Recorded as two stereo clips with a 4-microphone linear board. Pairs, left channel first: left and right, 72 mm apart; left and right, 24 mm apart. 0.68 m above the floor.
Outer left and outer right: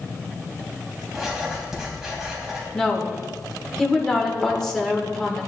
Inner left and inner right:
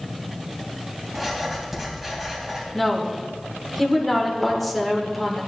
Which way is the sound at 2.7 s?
10° left (ahead or behind).